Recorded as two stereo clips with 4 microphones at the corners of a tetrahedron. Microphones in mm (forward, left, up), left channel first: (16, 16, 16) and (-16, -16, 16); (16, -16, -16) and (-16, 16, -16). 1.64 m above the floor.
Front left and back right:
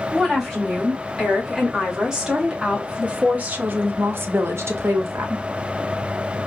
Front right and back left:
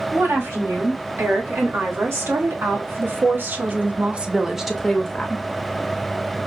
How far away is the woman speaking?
About 2.5 m.